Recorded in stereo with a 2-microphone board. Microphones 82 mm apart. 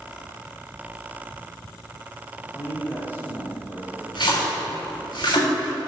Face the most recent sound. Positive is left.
turn(degrees=75)  # may be behind; listen again after turning